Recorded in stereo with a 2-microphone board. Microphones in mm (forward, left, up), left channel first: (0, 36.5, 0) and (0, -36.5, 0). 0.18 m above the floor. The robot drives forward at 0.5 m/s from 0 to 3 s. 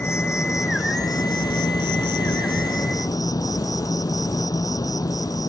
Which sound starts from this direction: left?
An insect, at 0.0 s.